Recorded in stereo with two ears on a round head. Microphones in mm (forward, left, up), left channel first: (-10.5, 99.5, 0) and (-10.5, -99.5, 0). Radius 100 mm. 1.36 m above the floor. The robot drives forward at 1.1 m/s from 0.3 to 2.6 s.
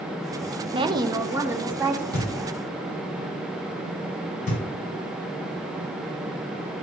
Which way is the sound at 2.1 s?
40° left (ahead or behind).